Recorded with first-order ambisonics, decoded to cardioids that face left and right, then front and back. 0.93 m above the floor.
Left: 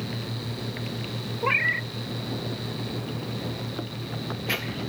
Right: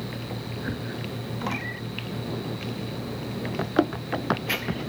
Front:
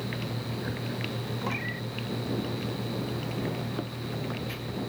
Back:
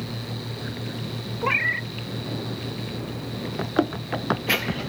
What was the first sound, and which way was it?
A cat meowing, 135° left.